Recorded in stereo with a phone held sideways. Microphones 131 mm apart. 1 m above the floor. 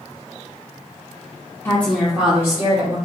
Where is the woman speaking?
15° left (ahead or behind), 0.8 m; by 3.0 s 30° right (ahead or behind), 1.3 m.